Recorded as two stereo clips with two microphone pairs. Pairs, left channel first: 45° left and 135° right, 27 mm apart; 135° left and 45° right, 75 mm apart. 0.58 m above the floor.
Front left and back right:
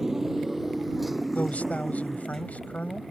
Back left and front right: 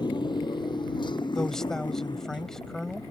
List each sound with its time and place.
0.0 s a motorcycle: 150° left; by 3.1 s 135° left
1.4 s a man speaking: 55° left